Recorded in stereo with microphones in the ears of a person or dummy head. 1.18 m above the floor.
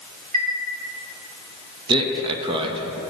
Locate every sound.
0.3 s a chime: 35° right (ahead or behind), 0.8 m
1.9 s a man speaking: 20° right (ahead or behind), 0.5 m